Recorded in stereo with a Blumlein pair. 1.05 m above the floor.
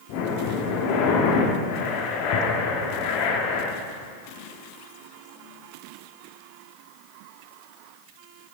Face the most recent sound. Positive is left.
turn(degrees=45)